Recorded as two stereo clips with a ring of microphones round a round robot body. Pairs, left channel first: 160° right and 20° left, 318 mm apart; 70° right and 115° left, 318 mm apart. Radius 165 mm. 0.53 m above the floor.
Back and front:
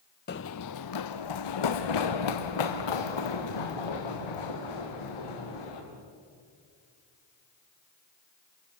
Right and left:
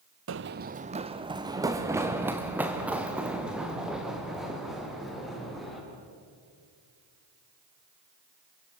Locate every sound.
0.3 s running footsteps: 150° left, 0.7 m; by 5.8 s 155° right, 5.5 m